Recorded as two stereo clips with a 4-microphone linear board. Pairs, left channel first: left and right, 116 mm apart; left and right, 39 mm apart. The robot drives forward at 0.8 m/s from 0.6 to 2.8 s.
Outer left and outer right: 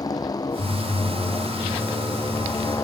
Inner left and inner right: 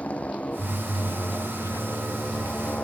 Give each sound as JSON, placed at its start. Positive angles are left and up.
{"t": 0.0, "sound": "a motorcycle", "side_deg": 35}